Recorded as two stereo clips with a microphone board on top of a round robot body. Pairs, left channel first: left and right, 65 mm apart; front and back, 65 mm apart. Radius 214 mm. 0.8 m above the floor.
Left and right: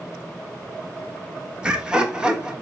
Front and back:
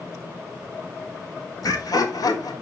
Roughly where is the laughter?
Ahead.